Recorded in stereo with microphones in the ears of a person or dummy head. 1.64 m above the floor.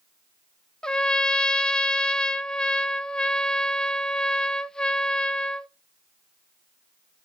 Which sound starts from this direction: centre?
A trumpet, at 0.8 s.